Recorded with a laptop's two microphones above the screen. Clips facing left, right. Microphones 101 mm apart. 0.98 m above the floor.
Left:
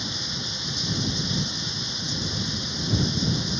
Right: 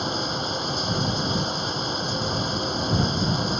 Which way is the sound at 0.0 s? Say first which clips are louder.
Right 8 dB; 50° right (ahead or behind).